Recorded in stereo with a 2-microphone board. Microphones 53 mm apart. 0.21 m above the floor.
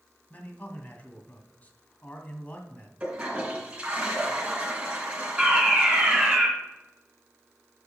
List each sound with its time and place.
0.3 s a man speaking: 30° left (ahead or behind), 1.9 m
3.0 s a toilet flushing: 20° right (ahead or behind), 3 m
5.4 s a fire alarm: 15° right (ahead or behind), 3.5 m